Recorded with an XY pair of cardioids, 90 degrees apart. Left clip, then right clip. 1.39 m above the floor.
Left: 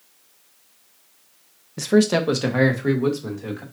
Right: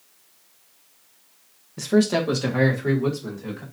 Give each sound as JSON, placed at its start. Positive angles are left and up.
{"t": 1.8, "sound": "a man speaking", "azimuth_deg": 30, "distance_m": 0.7}